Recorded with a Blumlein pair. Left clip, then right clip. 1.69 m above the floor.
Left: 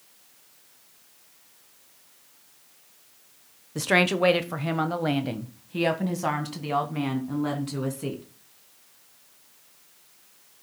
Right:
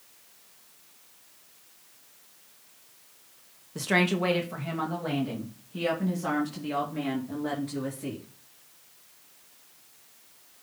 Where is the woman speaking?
15° left, 0.8 m; by 8.2 s 40° left, 3 m.